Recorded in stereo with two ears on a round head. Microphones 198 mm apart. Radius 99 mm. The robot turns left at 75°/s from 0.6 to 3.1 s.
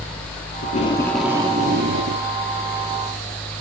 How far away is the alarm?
No alarm in this recording.